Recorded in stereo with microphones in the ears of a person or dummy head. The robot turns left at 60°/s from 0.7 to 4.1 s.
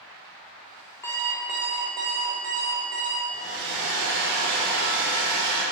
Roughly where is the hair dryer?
Ahead.